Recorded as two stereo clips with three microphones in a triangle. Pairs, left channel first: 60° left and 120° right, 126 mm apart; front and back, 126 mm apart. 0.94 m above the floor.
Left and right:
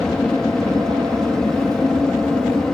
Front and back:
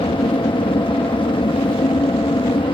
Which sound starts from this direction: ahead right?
An aircraft, at 0.0 s.